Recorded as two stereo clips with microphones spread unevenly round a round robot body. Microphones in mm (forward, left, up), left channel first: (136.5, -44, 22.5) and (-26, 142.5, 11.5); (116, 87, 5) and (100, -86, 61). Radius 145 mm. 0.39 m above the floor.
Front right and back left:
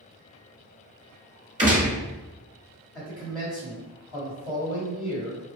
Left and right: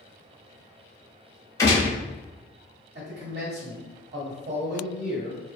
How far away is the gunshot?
About 1.0 m.